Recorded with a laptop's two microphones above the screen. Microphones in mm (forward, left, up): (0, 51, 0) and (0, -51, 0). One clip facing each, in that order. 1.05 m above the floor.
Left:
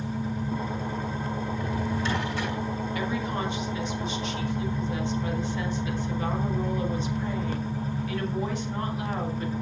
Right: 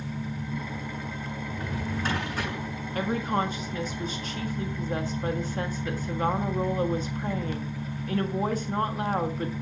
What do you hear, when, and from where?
0.0 s an engine running: 35° left (ahead or behind), 1.7 m
1.5 s a drawer: 45° right (ahead or behind), 7.5 m
3.0 s a woman speaking: 40° right (ahead or behind), 1.5 m